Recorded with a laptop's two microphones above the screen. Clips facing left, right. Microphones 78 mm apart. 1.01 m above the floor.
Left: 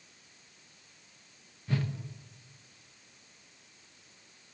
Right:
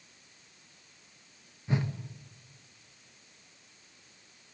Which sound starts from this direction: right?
A whoosh, at 1.7 s.